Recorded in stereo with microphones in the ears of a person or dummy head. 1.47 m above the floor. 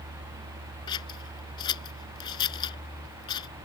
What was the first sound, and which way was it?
Scissors, 25° left (ahead or behind).